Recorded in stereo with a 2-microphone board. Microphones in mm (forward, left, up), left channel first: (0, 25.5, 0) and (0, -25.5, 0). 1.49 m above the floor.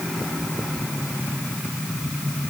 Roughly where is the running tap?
No running tap in this recording.